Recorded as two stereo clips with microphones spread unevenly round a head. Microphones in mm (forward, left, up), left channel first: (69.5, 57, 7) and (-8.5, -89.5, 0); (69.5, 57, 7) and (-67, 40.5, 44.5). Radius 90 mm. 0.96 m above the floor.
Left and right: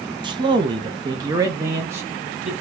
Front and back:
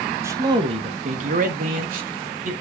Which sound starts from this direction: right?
A man speaking, at 0.2 s.